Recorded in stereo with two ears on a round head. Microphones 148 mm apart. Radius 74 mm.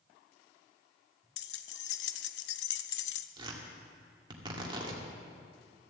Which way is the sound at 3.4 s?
30° right (ahead or behind).